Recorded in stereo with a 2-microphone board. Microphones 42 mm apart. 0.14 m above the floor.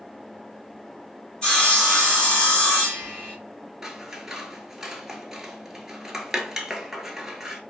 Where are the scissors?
10° right (ahead or behind), 0.7 m.